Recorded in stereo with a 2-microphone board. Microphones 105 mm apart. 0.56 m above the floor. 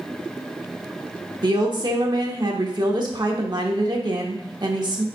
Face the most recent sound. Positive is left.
turn(degrees=-45)  # may be behind; listen again after turning